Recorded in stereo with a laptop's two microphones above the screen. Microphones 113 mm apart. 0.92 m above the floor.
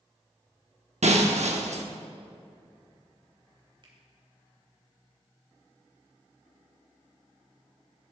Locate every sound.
1.0 s breaking glass: 75° right (ahead or behind), 0.9 m
3.8 s a finger snap: 45° right (ahead or behind), 3 m